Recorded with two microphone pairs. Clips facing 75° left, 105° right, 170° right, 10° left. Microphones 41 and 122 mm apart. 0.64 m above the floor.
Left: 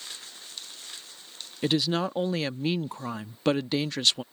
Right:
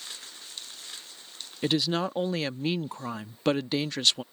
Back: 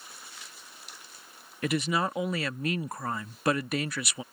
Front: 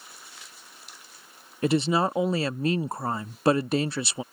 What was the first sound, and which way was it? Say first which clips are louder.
A woman speaking: left 1 dB, front 5 dB; 15° right.